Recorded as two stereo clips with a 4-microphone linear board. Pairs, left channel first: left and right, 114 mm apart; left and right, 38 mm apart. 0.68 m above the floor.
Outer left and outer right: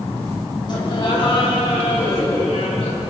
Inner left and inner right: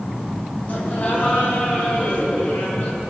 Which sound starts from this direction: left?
Laughter, at 0.7 s.